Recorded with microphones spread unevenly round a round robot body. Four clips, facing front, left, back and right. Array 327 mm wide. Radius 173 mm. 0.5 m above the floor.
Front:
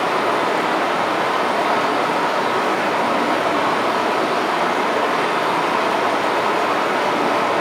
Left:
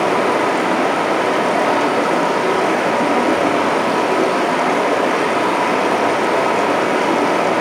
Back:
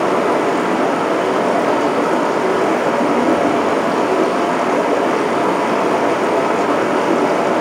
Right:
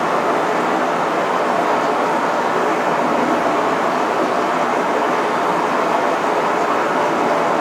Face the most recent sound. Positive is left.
turn(degrees=145)